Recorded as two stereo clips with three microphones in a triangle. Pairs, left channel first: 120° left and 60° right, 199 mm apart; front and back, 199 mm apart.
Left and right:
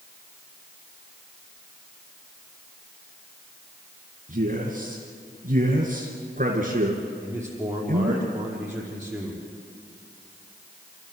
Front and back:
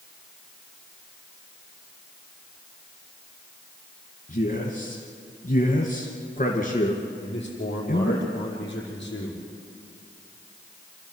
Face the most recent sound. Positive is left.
turn(degrees=25)